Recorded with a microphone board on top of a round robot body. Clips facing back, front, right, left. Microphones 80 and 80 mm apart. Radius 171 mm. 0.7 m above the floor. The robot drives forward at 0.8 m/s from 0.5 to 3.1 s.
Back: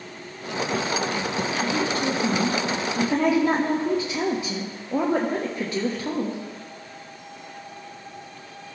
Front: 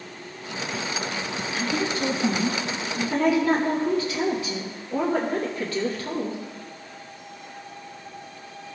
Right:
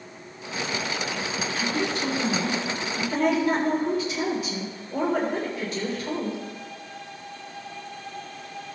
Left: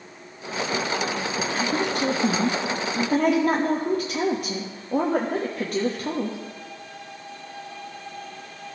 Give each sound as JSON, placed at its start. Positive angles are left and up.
{"t": 1.5, "sound": "a woman speaking", "azimuth_deg": 50, "distance_m": 1.5}